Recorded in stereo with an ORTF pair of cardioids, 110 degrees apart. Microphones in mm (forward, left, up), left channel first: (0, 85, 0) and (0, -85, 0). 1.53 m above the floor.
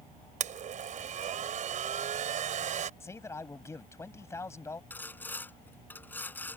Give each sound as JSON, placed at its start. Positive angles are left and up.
{"t": 0.4, "sound": "a blender", "azimuth_deg": -50}
{"t": 3.0, "sound": "a man speaking", "azimuth_deg": 15}
{"t": 4.9, "sound": "sawing", "azimuth_deg": 10}